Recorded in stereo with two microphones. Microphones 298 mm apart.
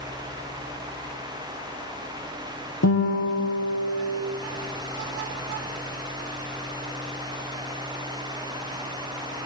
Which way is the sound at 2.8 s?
60° left (ahead or behind).